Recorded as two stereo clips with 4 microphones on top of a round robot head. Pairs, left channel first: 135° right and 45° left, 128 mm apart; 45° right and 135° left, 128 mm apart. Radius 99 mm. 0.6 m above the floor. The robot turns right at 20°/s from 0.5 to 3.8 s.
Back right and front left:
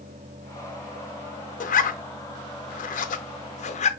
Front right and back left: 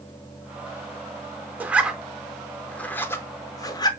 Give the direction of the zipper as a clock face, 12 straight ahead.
5 o'clock.